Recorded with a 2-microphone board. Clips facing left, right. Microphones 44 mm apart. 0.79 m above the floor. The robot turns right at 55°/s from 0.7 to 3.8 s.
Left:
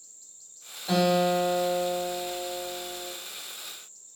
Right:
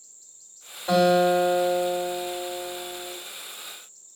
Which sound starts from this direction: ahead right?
A guitar, at 0.9 s.